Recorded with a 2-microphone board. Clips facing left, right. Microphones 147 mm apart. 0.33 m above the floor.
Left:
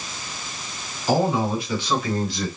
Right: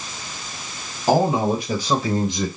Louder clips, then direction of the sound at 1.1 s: Right 3 dB; 50° right (ahead or behind).